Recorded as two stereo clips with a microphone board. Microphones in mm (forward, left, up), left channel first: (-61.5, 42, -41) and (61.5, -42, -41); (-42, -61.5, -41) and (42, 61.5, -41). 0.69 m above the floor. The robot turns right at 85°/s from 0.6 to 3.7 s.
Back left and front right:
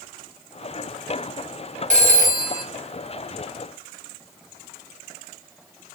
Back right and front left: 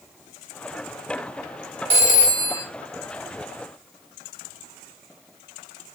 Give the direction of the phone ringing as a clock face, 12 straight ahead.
12 o'clock.